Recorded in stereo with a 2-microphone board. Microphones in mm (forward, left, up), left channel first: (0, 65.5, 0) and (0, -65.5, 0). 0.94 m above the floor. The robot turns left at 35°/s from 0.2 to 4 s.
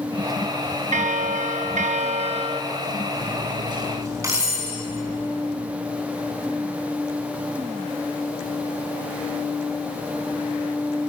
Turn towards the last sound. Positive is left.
turn(degrees=-25)  # may be behind; listen again after turning